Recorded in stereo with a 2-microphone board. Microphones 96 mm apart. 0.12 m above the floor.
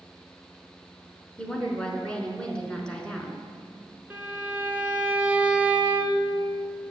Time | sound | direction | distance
1.4 | a woman speaking | 10° left (ahead or behind) | 1.1 m
4.1 | a violin | 15° right (ahead or behind) | 0.7 m